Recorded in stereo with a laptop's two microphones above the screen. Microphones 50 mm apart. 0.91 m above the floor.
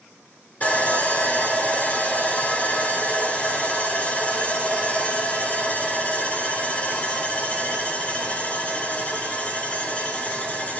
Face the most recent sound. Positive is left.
turn(degrees=30)  # may be behind; listen again after turning